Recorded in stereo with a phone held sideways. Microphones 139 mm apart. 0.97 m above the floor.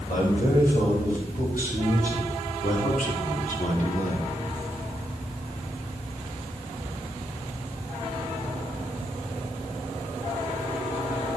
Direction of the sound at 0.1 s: 75° left (ahead or behind).